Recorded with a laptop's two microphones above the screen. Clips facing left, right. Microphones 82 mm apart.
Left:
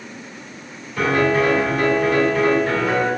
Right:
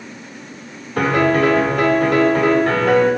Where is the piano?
55° right (ahead or behind), 1.6 m.